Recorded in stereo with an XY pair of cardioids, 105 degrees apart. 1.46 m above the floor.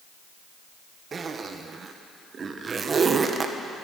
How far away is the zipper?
About 1.2 m.